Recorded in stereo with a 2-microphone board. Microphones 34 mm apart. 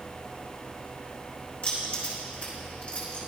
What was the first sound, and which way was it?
Keys jangling, 45° left (ahead or behind).